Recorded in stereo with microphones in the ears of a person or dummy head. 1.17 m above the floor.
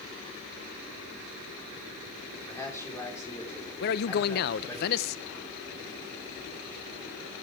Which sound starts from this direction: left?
A man speaking, at 3.8 s.